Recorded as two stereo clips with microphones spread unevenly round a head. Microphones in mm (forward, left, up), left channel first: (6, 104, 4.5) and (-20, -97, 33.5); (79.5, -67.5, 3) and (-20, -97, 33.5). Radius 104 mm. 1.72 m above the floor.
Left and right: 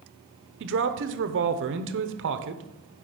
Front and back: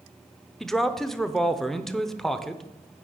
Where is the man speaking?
80° right, 0.8 m.